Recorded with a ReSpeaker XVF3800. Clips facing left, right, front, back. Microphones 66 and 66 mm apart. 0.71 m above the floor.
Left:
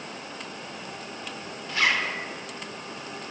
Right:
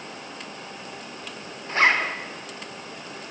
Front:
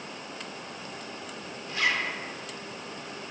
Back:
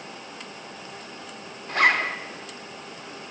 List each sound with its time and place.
1.7 s a zipper: 140° right, 0.5 m